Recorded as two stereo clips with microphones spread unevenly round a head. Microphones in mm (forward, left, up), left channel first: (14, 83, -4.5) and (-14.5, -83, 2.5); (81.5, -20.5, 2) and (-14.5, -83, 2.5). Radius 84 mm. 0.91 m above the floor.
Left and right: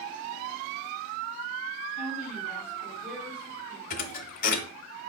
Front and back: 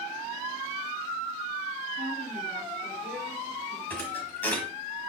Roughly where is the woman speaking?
Behind.